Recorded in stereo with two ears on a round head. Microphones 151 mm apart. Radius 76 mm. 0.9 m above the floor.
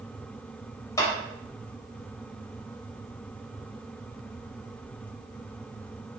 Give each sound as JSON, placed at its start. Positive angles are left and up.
{"t": 1.0, "sound": "a clap", "side_deg": 20, "distance_m": 3.5}